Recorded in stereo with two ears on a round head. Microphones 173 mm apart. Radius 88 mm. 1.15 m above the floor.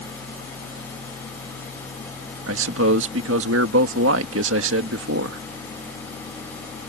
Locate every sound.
2.5 s a man speaking: 70° right (ahead or behind)